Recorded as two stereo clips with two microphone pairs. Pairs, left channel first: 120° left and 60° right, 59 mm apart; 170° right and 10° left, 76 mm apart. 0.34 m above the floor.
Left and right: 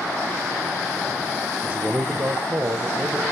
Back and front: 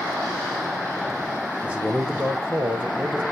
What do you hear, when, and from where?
1.6 s a man speaking: 50° right, 1.6 m